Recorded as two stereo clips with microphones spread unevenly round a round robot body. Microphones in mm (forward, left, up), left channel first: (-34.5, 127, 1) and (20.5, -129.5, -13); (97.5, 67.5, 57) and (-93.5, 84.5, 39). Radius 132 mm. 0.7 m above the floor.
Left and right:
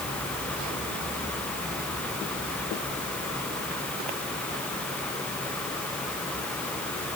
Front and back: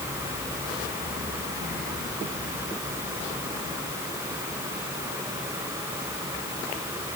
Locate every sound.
Only background noise.